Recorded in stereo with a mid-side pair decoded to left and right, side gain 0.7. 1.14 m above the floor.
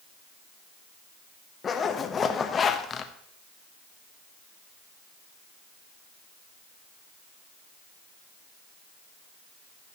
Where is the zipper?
30° left, 1.0 m.